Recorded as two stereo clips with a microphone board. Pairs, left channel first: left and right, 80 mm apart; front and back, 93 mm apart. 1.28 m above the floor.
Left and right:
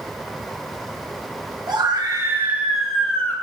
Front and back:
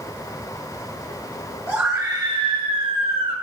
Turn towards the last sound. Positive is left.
turn(degrees=160)